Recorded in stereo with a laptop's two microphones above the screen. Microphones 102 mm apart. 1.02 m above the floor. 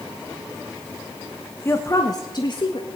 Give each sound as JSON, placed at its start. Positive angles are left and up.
{"t": 1.6, "sound": "a woman speaking", "side_deg": 25, "distance_m": 1.0}